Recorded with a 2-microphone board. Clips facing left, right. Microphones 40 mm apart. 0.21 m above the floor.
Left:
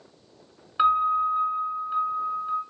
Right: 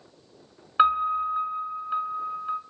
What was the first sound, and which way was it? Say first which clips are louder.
A piano: left 1 dB; 15° right (ahead or behind).